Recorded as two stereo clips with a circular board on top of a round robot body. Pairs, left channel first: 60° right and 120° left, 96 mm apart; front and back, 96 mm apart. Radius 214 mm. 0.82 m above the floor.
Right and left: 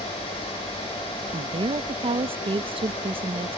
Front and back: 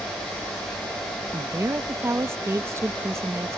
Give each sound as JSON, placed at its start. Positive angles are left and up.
{"t": 1.3, "sound": "a woman speaking", "azimuth_deg": 120}